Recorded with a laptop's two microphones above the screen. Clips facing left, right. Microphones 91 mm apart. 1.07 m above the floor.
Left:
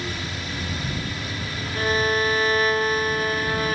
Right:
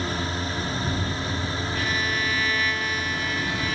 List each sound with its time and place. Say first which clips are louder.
0.0 s a drone: right 3 dB; 35° right (ahead or behind); by 3.8 s 25° right (ahead or behind)
1.8 s a violin: left 8 dB; 40° left (ahead or behind)